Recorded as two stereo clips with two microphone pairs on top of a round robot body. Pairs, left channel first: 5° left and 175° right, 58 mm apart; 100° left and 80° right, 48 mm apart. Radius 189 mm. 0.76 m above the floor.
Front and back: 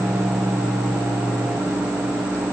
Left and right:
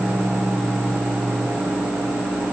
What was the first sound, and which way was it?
Only background noise.